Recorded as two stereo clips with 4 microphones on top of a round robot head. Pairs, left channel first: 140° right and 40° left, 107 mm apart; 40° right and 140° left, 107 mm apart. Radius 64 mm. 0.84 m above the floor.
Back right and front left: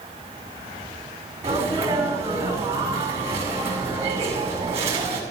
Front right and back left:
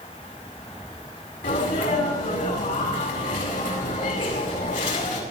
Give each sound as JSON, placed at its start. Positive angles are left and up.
{"t": 1.4, "sound": "a sneeze", "azimuth_deg": -25, "distance_m": 6.5}